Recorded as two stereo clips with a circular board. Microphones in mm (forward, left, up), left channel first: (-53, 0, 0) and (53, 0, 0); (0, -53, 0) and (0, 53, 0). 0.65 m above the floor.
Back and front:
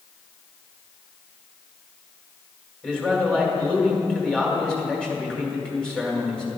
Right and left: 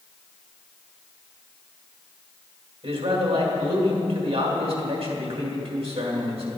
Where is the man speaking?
100° left, 2 m.